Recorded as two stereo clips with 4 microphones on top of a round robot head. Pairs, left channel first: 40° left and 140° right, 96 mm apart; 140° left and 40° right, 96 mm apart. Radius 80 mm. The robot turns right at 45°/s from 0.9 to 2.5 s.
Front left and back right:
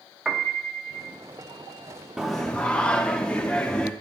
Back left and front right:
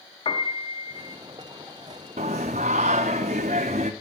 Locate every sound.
0.2 s a piano: 135° left, 1.4 m; by 1.2 s 145° left, 1.4 m
2.2 s singing: 55° right, 0.5 m; by 3.9 s 40° right, 0.5 m